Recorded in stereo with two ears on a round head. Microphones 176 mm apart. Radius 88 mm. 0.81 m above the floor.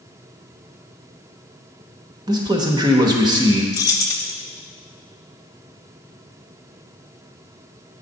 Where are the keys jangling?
20° left (ahead or behind), 0.8 m.